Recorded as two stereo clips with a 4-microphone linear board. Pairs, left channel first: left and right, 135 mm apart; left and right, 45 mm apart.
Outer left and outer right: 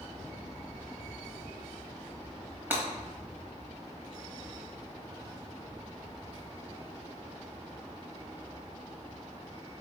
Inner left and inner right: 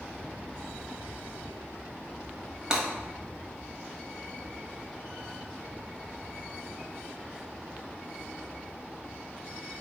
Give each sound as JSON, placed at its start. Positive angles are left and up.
{"t": 2.7, "sound": "breaking glass", "side_deg": -15, "distance_m": 1.1}